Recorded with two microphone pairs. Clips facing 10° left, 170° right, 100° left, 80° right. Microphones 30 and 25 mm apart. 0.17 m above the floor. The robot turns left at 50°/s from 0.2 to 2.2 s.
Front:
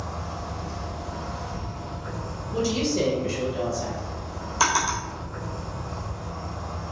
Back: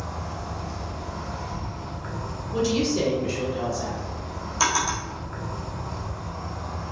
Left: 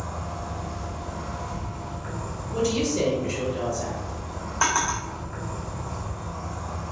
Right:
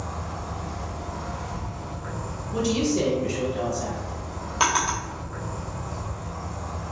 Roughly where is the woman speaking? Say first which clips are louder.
Back 1 dB, right 1 dB; right.